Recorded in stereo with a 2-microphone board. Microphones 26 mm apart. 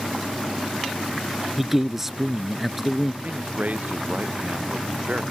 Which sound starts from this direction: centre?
A man speaking, at 1.6 s.